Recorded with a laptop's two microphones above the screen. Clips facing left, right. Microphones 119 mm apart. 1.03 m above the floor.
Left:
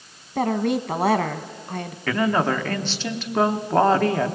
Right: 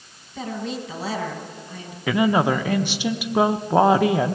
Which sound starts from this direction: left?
A woman speaking, at 0.3 s.